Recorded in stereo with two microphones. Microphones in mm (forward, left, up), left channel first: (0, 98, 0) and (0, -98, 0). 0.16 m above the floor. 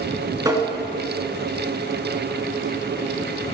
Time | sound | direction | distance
0.5 | tapping | 20° right (ahead or behind) | 2 m